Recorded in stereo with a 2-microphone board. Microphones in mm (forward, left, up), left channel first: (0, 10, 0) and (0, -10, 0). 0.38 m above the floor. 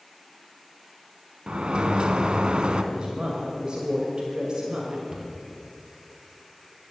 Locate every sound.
1.5 s a sliding door: 55° right (ahead or behind), 0.9 m
2.9 s a woman speaking: 45° right (ahead or behind), 2 m
5.1 s a cupboard door: 25° right (ahead or behind), 3 m